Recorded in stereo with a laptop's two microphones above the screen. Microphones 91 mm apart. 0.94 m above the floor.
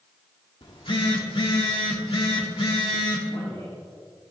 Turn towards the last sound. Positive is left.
turn(degrees=70)  # may be behind; listen again after turning